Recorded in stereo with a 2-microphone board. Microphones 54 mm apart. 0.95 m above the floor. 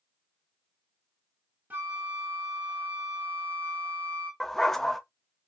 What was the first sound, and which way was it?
A flute, 35° right (ahead or behind).